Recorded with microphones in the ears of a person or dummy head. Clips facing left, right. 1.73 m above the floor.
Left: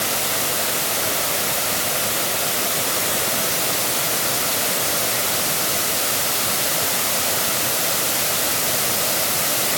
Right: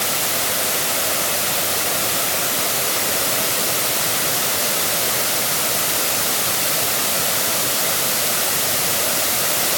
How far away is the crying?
I don't hear crying.